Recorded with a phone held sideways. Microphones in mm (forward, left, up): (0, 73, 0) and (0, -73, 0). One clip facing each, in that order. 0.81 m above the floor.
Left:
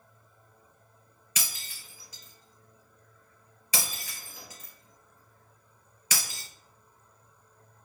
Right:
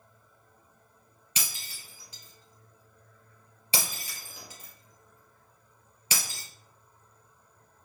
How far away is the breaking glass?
About 3 m.